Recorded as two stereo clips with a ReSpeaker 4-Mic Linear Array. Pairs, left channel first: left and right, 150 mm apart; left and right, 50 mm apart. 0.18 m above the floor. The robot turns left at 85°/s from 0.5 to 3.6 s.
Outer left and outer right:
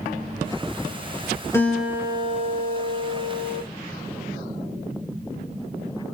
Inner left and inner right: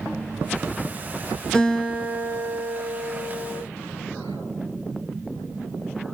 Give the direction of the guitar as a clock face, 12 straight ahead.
11 o'clock.